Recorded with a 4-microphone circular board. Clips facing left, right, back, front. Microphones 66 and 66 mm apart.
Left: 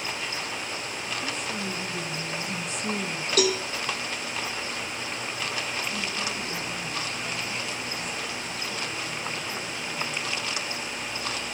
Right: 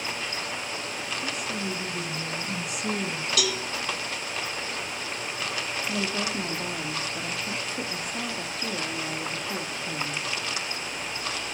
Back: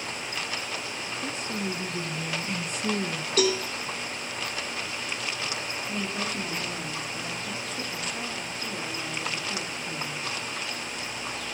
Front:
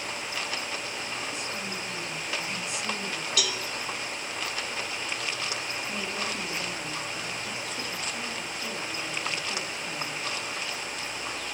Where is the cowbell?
135° left, 2 m.